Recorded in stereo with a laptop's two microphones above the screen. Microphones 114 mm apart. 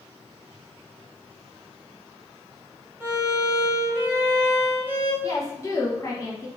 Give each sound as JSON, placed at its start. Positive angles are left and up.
{"t": 3.0, "sound": "a violin", "side_deg": -15, "distance_m": 1.3}
{"t": 5.2, "sound": "a woman speaking", "side_deg": 30, "distance_m": 0.8}